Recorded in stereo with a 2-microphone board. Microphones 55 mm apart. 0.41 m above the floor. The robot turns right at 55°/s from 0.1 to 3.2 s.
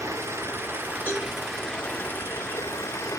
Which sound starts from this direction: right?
Running water, at 0.0 s.